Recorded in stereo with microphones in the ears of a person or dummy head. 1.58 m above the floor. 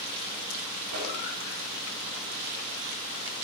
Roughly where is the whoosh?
Right.